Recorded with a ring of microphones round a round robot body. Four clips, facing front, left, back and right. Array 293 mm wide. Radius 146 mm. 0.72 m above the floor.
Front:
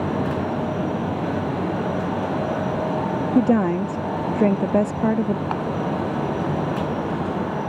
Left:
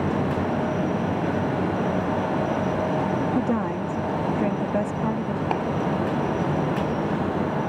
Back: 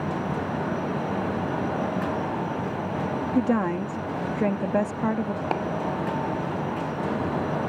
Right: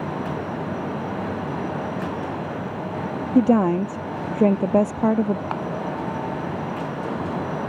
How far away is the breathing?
I don't hear breathing.